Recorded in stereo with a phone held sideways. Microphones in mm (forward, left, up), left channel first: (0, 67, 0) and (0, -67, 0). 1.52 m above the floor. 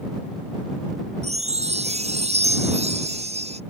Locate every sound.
1.2 s a chime: 55° right (ahead or behind)